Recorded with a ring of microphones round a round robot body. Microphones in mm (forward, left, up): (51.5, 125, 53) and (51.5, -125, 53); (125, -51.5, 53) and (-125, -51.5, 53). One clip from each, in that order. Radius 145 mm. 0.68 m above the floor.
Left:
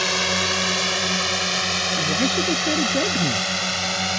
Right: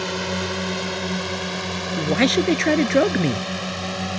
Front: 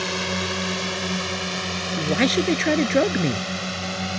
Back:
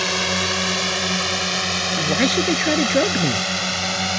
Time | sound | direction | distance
0.0 | a drone | 110° left | ?
2.0 | a man speaking | 80° right | ?